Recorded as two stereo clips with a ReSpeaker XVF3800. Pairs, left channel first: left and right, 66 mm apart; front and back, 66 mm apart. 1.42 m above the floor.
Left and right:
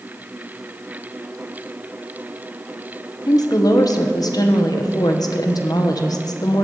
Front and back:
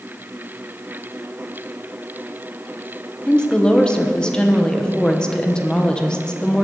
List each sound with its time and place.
3.3 s a woman speaking: 80° left, 1.2 m